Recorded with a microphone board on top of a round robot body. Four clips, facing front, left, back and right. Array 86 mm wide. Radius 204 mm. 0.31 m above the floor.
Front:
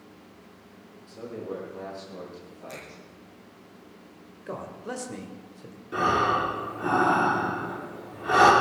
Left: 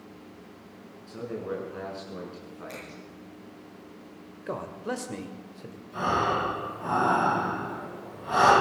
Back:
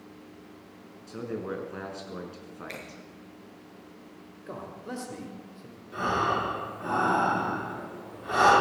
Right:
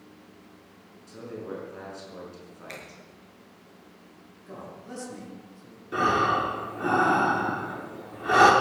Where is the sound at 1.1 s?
165° left, 6 m.